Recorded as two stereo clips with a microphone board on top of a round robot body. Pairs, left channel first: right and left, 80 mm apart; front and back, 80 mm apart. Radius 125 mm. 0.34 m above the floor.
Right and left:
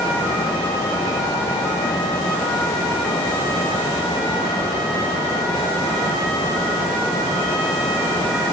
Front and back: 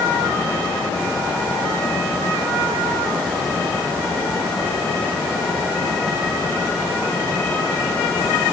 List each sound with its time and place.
Only background noise.